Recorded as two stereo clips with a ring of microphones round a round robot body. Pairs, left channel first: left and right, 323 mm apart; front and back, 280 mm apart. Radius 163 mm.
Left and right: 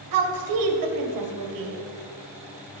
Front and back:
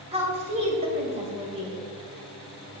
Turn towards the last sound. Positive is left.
turn(degrees=-110)